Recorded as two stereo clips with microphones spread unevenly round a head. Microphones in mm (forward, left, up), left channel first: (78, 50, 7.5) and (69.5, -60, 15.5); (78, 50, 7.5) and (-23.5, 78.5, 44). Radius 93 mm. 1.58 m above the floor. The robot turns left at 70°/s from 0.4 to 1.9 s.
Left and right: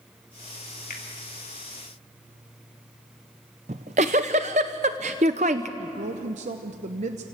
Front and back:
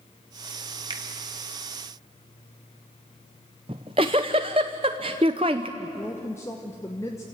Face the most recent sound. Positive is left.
turn(degrees=-100)